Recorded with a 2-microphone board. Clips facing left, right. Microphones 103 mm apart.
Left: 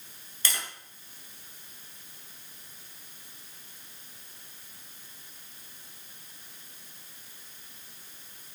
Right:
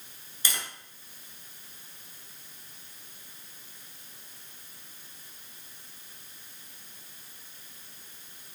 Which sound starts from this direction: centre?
Tapping, at 0.5 s.